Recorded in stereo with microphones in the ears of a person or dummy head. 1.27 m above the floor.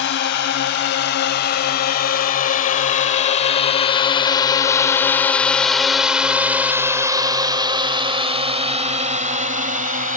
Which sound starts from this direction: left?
A drone, at 0.0 s.